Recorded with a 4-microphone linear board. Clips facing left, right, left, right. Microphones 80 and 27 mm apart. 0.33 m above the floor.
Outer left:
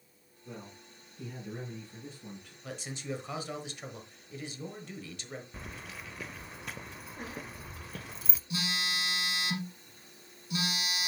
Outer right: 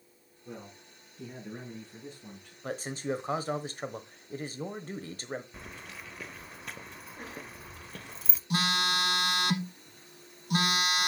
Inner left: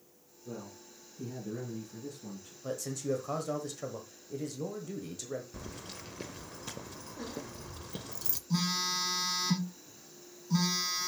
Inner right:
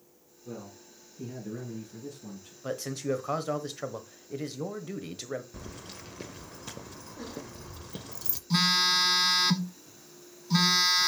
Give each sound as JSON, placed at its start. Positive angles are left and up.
{"t": 0.5, "sound": "a man speaking", "side_deg": -15, "distance_m": 5.0}
{"t": 2.6, "sound": "a man speaking", "side_deg": -40, "distance_m": 1.1}
{"t": 5.5, "sound": "keys jangling", "side_deg": 0, "distance_m": 0.5}
{"t": 8.5, "sound": "a phone buzzing", "side_deg": -65, "distance_m": 0.8}